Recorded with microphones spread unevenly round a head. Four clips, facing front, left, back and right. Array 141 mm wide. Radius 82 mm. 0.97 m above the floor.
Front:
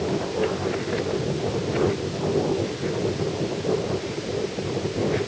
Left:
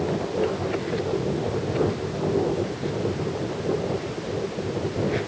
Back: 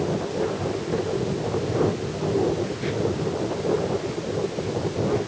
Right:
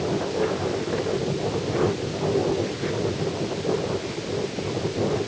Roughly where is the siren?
No siren in this recording.